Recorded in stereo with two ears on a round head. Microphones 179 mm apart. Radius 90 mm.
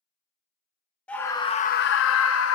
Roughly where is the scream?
Centre.